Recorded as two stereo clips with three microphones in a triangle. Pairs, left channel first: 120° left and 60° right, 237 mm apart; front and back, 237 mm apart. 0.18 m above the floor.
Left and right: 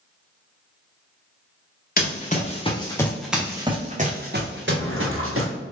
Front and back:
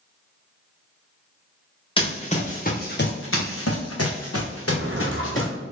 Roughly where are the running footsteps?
Ahead left.